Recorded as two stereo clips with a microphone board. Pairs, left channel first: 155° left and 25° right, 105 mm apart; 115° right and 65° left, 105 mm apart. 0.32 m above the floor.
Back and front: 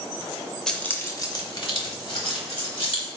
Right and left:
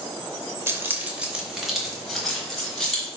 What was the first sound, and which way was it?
Keys jangling, 80° left.